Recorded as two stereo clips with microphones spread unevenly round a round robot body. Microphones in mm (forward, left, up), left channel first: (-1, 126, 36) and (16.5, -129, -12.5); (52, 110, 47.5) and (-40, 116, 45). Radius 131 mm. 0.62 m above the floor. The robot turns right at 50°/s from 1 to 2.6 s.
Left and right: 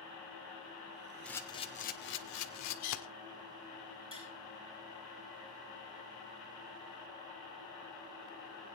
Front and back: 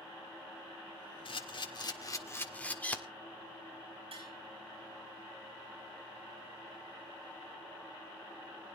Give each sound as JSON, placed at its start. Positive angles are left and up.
{"t": 1.2, "sound": "a camera shutter", "azimuth_deg": 5, "distance_m": 2.0}
{"t": 4.1, "sound": "tapping", "azimuth_deg": -155, "distance_m": 7.5}